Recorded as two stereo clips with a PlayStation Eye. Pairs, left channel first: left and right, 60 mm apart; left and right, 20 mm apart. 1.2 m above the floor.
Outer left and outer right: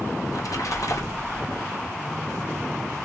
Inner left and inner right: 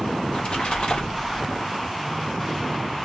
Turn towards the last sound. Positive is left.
turn(degrees=60)  # may be behind; listen again after turning